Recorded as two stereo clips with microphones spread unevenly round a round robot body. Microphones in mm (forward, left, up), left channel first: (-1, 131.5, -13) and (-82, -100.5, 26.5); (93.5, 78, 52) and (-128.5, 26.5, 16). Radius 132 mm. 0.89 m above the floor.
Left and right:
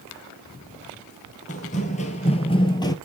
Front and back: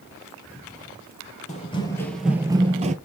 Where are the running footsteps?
15° left, 1.0 m; by 3.0 s 150° left, 1.0 m.